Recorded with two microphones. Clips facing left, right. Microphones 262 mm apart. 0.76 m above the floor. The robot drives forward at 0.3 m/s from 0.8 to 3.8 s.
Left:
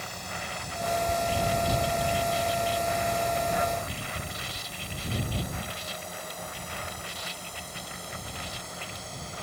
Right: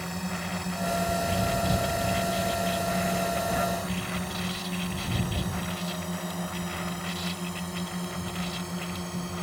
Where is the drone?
65° right (ahead or behind).